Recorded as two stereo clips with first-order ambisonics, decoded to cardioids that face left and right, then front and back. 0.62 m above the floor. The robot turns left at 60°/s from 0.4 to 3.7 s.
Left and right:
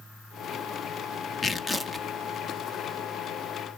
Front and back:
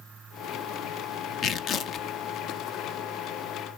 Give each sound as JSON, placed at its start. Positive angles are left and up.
{"t": 1.4, "sound": "tearing paper", "azimuth_deg": 25, "distance_m": 0.5}